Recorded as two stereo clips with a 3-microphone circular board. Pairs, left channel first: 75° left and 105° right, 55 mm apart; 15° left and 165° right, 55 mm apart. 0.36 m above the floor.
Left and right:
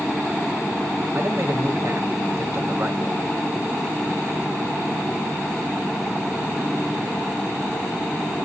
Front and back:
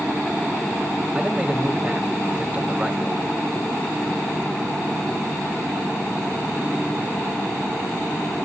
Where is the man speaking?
105° right, 1.7 m.